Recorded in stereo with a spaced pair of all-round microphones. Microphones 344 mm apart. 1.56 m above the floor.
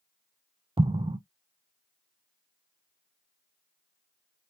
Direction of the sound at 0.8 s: 15° right (ahead or behind).